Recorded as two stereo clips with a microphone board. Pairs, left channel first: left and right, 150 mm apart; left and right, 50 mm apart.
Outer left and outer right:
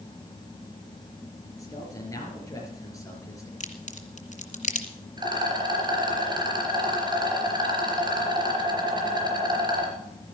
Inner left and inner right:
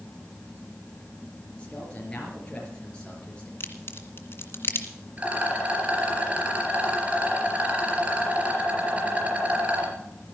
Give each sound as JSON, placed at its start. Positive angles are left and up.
{"t": 1.6, "sound": "a man speaking", "side_deg": 20, "distance_m": 4.5}
{"t": 3.6, "sound": "a crack", "side_deg": 55, "distance_m": 2.0}
{"t": 5.2, "sound": "a rattle", "side_deg": -30, "distance_m": 4.0}